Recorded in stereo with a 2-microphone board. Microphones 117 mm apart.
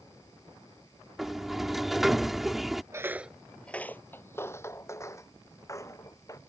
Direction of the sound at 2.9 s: 25° right (ahead or behind).